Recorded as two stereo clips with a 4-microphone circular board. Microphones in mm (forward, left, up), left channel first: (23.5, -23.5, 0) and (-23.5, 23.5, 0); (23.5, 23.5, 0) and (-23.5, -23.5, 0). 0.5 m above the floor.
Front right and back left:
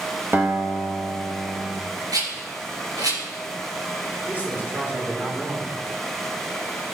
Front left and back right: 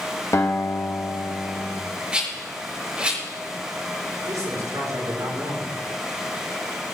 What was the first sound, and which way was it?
A guitar, 75° left.